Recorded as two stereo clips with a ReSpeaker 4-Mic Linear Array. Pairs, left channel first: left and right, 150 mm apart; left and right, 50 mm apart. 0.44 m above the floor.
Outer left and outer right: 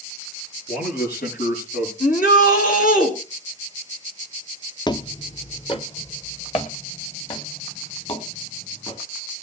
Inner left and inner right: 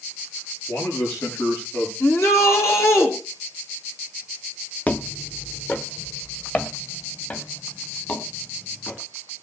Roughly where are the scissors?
I don't hear scissors.